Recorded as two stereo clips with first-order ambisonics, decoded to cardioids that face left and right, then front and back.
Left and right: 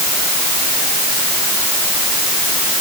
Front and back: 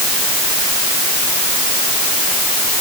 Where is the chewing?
No chewing in this recording.